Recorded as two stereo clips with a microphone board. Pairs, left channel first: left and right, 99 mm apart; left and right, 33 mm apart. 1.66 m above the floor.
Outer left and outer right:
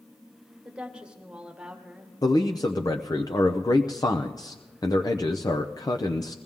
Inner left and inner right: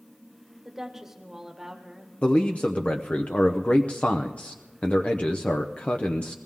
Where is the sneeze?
No sneeze in this recording.